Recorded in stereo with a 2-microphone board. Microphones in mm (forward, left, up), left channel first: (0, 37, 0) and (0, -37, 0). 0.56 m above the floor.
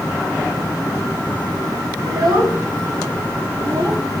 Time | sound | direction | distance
2.0 | a child speaking | 65° right (ahead or behind) | 1.6 m